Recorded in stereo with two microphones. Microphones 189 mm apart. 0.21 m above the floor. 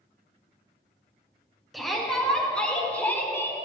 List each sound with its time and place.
1.7 s a shout: centre (ahead or behind), 3 m; by 3.5 s 15° left (ahead or behind), 2 m